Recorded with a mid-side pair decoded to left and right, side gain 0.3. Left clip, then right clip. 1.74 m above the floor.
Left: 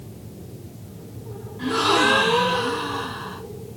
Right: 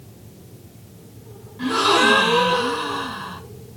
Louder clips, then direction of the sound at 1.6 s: Right 2 dB; 60° right.